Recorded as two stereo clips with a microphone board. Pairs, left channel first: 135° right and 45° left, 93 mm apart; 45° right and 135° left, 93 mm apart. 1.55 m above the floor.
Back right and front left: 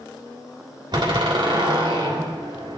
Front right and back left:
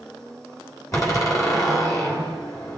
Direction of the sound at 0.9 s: 10° left.